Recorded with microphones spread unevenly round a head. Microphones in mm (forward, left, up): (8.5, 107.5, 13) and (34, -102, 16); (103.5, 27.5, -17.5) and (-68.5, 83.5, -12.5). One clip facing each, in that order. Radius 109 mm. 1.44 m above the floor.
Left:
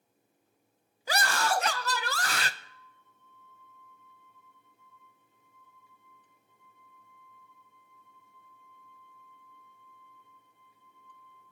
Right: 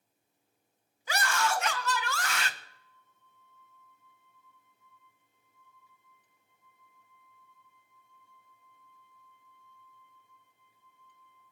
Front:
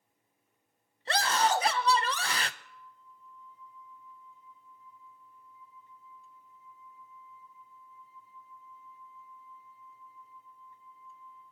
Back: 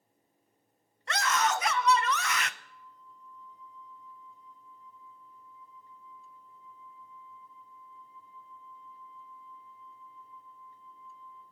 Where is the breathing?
No breathing in this recording.